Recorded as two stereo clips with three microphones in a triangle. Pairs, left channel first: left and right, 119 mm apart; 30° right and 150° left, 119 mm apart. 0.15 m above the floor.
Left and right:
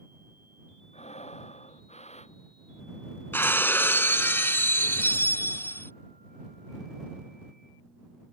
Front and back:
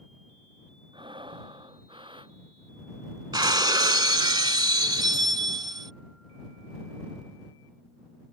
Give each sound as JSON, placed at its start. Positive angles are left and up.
{"t": 0.9, "sound": "breathing", "azimuth_deg": 105}
{"t": 3.3, "sound": "breaking glass", "azimuth_deg": 145}